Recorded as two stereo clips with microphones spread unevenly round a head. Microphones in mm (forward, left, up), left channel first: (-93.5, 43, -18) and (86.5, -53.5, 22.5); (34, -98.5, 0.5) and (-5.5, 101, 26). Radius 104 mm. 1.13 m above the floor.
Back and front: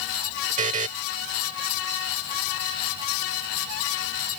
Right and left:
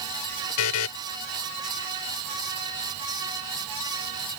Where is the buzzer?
80° right.